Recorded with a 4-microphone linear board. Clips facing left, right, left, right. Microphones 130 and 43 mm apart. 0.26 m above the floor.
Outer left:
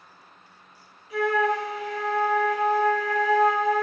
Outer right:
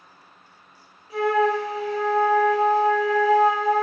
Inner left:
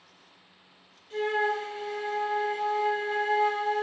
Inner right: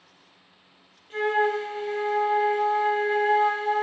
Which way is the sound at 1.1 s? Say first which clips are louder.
Outer right 3 dB, inner right 4 dB; 30° right (ahead or behind).